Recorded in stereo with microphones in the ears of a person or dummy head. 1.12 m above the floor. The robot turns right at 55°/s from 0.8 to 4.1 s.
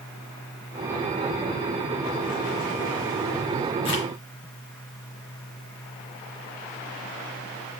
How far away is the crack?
About 4.5 m.